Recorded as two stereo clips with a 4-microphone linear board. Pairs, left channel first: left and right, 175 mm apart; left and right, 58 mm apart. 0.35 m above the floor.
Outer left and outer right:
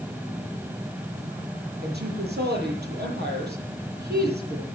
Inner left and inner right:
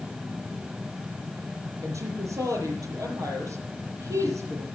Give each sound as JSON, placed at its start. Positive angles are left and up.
{"t": 1.8, "sound": "a woman speaking", "side_deg": -75, "distance_m": 7.5}